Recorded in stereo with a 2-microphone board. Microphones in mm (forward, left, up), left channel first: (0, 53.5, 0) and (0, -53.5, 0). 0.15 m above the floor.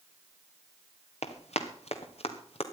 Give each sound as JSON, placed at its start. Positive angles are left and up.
{"t": 1.2, "sound": "running footsteps", "side_deg": 80, "distance_m": 2.0}